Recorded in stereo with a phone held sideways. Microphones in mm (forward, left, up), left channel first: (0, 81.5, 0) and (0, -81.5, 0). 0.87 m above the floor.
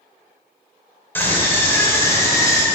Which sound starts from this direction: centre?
A scream, at 1.1 s.